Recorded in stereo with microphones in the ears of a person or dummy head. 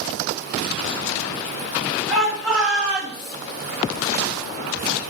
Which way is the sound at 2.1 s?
Centre (ahead or behind).